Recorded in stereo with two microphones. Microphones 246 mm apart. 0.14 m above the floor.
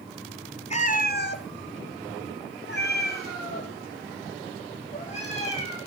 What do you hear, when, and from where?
0.7 s a cat meowing: 30° left (ahead or behind), 1.3 m; by 5.8 s 25° left (ahead or behind), 4 m